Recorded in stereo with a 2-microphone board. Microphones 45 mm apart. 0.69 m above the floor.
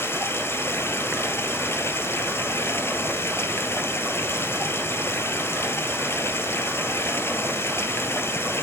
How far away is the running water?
About 1.7 m.